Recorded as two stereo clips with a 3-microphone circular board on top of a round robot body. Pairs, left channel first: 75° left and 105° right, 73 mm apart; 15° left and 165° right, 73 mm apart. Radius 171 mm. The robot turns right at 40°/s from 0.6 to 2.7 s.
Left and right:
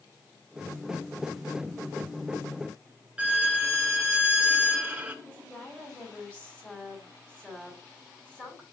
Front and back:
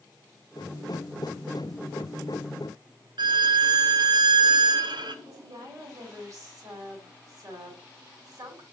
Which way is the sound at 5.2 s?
150° left.